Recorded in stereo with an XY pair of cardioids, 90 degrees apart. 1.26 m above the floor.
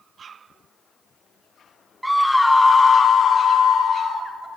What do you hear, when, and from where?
2.0 s a scream: 5° right, 0.6 m; by 4.3 s 75° left, 1.1 m